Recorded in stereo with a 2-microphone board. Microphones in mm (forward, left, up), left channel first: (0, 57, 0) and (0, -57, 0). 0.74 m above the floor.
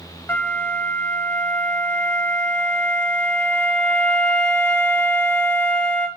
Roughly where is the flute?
Centre.